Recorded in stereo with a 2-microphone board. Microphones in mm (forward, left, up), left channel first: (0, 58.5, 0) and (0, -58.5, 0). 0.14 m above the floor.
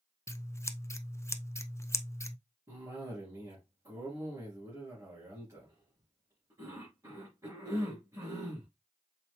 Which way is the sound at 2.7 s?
25° right (ahead or behind).